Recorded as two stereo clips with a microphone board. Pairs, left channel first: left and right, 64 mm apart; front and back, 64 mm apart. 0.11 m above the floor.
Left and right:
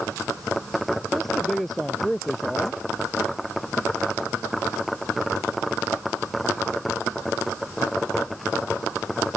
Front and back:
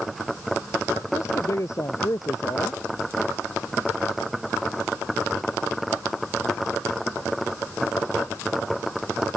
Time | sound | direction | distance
1.1 | a woman speaking | 5° left | ?